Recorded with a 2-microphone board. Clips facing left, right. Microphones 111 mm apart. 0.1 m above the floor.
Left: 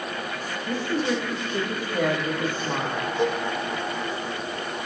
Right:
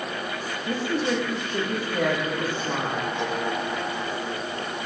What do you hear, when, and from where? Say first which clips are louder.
0.7 s a woman speaking: even; 5° right (ahead or behind), 7 m; by 3.0 s 15° left (ahead or behind), 6.5 m
3.2 s a cowbell: left 3 dB; 45° left (ahead or behind), 4.5 m